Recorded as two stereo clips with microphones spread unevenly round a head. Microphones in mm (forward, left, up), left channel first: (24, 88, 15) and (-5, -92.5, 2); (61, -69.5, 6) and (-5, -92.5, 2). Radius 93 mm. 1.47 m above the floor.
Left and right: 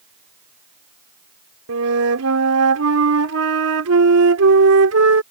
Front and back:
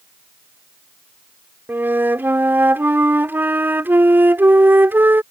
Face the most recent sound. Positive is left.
turn(degrees=-100)